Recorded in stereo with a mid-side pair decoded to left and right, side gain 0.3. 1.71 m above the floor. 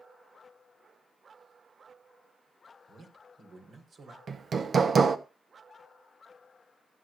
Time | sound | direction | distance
2.9 | a man speaking | 60° right | 5 m
4.3 | hammering | 60° right | 1.2 m